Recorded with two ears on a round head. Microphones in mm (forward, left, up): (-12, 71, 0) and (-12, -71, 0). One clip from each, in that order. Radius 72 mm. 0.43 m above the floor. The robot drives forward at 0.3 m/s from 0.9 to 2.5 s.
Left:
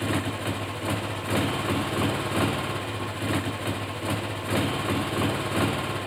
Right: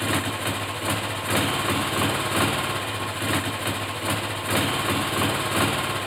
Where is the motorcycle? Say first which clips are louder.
Right 3 dB; 40° right (ahead or behind).